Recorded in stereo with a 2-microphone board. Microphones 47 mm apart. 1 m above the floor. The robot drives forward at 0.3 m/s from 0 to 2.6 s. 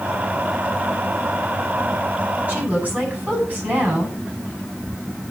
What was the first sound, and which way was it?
A woman speaking, 40° right (ahead or behind).